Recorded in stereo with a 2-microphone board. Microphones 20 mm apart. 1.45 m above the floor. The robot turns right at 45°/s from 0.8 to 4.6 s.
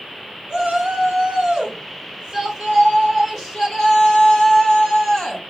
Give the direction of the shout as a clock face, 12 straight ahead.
4 o'clock.